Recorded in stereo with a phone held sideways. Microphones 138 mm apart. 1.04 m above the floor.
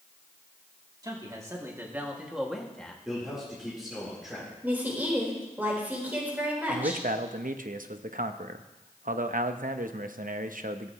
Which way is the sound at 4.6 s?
15° right (ahead or behind).